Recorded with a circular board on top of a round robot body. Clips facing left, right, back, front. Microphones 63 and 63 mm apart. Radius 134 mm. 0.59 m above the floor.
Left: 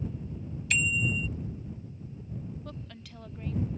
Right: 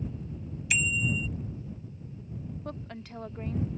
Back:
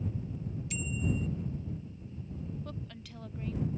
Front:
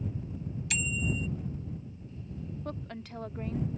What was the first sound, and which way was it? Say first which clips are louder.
A bicycle bell: even, front 2 dB; 10° right.